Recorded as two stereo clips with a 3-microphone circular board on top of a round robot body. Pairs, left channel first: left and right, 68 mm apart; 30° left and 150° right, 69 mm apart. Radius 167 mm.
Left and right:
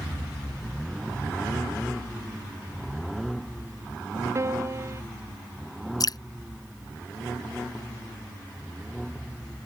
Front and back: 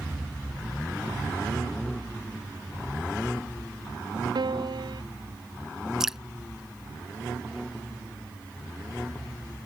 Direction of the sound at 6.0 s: 125° left.